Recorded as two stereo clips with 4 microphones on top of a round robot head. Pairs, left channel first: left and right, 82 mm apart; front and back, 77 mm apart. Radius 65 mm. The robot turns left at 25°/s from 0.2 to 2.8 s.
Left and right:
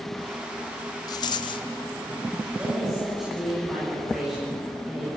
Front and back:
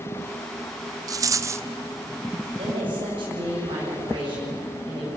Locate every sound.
1.1 s a rattle: 145° left, 0.7 m; by 1.7 s 130° left, 0.7 m
2.6 s a woman speaking: 165° right, 9 m; by 5.1 s 170° right, 9 m